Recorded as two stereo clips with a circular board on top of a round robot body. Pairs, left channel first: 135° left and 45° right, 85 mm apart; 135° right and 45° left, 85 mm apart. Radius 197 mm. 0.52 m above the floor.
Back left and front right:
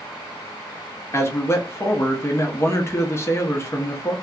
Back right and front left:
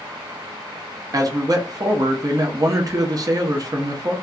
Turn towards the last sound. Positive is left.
turn(degrees=80)